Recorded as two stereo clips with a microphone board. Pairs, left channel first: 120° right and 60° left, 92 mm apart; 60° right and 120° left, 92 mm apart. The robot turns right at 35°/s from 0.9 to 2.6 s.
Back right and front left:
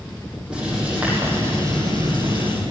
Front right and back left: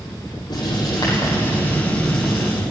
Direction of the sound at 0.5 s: 20° right.